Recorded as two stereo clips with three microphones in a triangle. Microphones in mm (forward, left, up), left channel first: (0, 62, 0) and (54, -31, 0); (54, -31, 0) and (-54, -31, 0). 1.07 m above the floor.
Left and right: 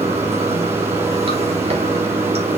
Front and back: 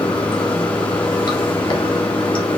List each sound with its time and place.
0.0 s running water: 45° right, 1.4 m